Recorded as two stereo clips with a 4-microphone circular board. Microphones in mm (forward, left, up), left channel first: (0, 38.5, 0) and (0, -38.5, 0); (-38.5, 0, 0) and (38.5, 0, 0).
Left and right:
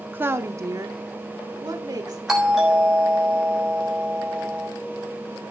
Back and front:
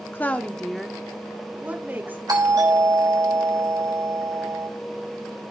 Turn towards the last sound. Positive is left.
turn(degrees=-10)